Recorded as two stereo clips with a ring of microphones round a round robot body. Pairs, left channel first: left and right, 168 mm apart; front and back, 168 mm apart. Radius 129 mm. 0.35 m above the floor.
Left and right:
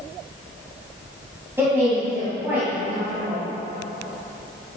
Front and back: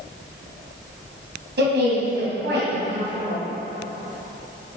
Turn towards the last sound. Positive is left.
turn(degrees=-170)